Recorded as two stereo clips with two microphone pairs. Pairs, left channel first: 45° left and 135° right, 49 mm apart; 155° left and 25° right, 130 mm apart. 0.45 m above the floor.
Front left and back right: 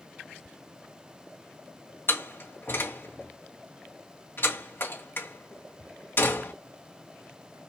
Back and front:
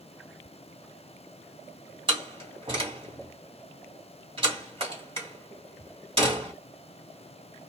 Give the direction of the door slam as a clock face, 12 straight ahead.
11 o'clock.